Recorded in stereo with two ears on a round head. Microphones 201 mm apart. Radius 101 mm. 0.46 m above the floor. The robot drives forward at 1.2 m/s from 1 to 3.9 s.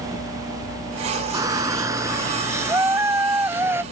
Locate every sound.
1.3 s a shout: 15° right (ahead or behind); by 3.8 s 10° right (ahead or behind)